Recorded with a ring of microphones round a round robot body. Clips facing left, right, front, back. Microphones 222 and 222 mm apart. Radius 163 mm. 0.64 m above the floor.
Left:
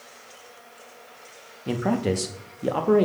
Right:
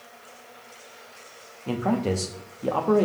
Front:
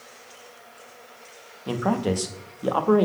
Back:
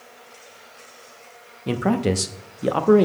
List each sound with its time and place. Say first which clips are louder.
1.7 s a man speaking: left 1 dB, back 3 dB; 150° left, 0.6 m